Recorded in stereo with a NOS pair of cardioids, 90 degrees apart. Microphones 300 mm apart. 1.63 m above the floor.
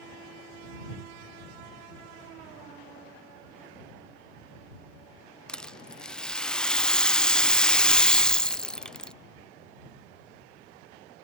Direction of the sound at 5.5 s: 5° left.